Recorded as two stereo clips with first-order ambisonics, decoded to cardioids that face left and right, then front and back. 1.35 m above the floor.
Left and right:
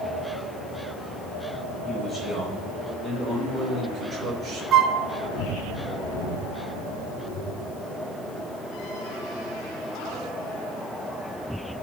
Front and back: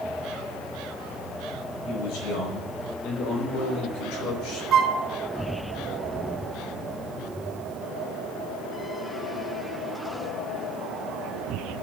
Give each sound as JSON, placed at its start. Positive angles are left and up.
{"t": 1.9, "sound": "a man speaking", "azimuth_deg": -5, "distance_m": 5.0}
{"t": 4.7, "sound": "a flute", "azimuth_deg": -135, "distance_m": 0.7}